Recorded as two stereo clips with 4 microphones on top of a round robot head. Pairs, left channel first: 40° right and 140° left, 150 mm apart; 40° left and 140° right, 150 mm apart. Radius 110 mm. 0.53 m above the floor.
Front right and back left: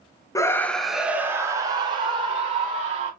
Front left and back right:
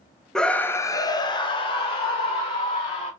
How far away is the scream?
About 0.7 m.